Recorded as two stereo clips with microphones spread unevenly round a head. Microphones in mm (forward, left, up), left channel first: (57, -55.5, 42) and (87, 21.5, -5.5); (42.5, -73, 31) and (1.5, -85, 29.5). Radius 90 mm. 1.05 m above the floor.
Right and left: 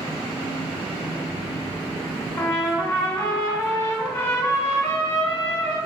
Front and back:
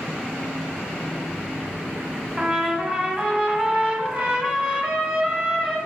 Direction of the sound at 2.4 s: 100° right.